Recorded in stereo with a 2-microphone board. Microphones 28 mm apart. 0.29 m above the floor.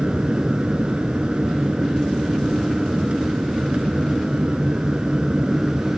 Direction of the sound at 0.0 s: 45° right (ahead or behind).